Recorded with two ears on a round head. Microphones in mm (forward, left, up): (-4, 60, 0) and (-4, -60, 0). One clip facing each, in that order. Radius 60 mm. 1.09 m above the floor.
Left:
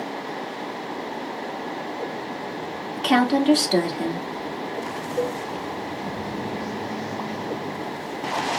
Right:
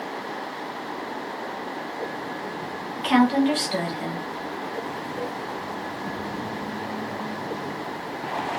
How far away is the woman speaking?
About 1.8 m.